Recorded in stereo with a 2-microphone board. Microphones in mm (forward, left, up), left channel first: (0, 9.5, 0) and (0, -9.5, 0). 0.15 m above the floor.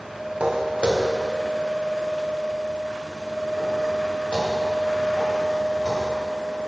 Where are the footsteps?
85° right, 1.7 m; by 6.1 s 50° right (ahead or behind), 6 m.